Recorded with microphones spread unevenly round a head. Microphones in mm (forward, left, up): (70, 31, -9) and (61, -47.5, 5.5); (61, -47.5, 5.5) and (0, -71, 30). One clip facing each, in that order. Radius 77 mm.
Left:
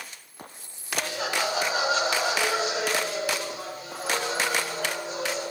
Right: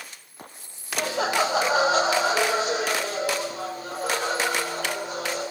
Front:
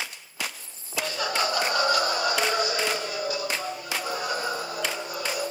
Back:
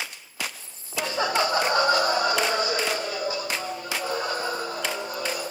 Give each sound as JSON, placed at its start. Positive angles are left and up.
{"t": 1.0, "sound": "laughter", "azimuth_deg": -95, "distance_m": 1.3}